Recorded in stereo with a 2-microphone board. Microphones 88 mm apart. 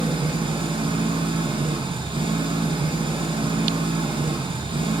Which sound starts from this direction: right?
An engine running, at 0.0 s.